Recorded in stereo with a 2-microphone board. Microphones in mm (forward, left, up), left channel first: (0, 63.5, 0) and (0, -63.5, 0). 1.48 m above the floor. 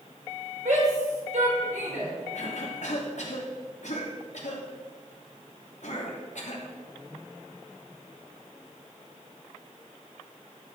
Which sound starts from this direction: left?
A cough, at 2.3 s.